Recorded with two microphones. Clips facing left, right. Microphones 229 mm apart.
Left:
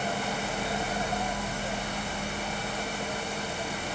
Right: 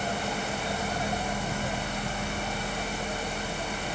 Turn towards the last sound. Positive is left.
No sound to turn to.